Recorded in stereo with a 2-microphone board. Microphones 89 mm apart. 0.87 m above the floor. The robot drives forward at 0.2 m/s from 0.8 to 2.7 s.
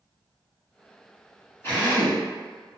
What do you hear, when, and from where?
1.6 s a drill: 30° left (ahead or behind), 1.2 m